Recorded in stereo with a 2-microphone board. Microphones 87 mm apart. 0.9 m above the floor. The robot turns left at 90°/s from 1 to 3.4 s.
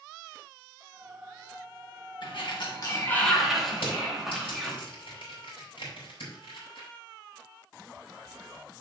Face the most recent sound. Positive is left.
turn(degrees=85)